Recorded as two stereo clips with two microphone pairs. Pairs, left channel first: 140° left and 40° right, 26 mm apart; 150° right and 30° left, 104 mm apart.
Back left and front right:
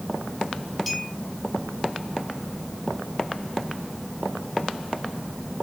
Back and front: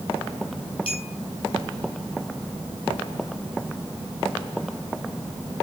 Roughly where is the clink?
Behind right.